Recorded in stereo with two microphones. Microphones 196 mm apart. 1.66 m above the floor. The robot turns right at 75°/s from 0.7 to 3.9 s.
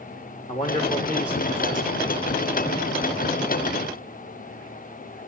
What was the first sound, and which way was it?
A man speaking, 145° left.